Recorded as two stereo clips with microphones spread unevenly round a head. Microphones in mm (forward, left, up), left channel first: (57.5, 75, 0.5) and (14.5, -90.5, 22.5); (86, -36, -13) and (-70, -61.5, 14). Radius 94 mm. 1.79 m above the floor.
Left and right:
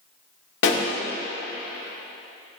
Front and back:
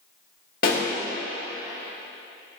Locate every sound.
0.6 s a pop: 60° left, 2 m